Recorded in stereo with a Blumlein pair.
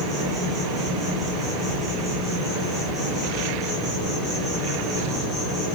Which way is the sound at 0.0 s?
5° right.